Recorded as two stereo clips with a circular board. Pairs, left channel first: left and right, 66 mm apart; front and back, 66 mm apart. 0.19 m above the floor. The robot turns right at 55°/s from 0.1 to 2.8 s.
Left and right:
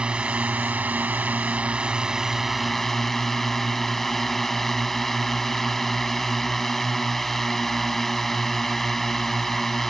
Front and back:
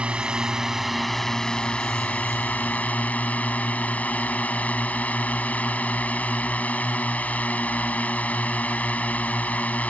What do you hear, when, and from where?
0.0 s a drone: 140° right; by 9.9 s 10° left